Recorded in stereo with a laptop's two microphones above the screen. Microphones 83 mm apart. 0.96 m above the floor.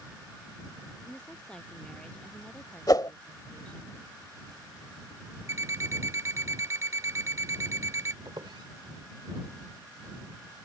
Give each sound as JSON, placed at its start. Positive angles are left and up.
{"t": 1.0, "sound": "a woman speaking", "side_deg": 10}
{"t": 2.9, "sound": "a whoosh", "side_deg": 55}
{"t": 5.5, "sound": "an alarm clock", "side_deg": -40}
{"t": 8.2, "sound": "a squeak", "side_deg": -75}